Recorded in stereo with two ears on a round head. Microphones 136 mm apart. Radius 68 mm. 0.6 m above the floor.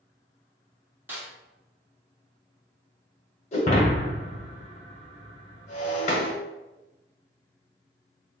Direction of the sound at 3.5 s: 45° left (ahead or behind).